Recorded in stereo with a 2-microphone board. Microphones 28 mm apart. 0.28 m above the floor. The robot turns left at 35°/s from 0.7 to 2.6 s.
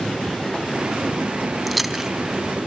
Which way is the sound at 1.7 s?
Centre (ahead or behind).